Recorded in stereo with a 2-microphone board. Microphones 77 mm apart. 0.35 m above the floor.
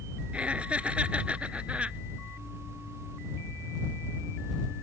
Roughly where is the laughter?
Centre.